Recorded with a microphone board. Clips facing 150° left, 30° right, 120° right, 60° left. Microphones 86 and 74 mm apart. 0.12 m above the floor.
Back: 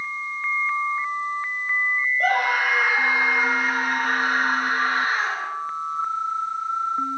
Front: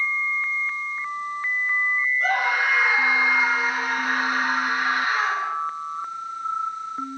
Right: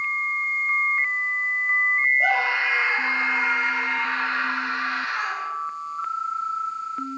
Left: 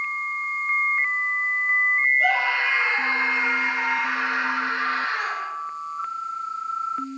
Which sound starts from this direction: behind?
A scream, at 2.2 s.